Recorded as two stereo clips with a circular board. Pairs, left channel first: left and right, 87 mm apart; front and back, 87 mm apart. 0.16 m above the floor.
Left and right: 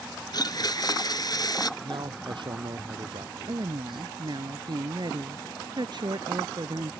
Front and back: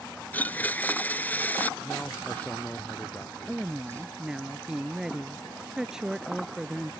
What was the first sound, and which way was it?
A blender, 70° left.